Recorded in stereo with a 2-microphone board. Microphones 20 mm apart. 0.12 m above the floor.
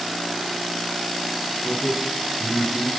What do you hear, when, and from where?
1.6 s a man speaking: 15° left (ahead or behind), 1.3 m